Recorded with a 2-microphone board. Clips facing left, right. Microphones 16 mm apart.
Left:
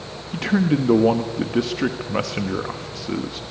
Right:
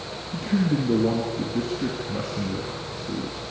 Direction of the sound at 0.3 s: 65° left (ahead or behind).